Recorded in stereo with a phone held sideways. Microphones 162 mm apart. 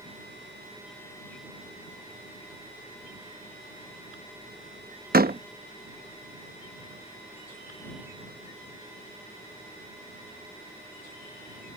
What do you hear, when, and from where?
5.1 s a door slam: 70° right (ahead or behind)